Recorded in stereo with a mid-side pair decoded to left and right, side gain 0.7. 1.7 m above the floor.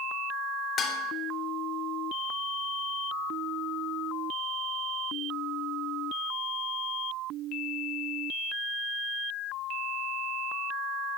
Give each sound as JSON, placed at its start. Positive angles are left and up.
{"t": 0.8, "sound": "dishes clattering", "azimuth_deg": 40, "distance_m": 3.0}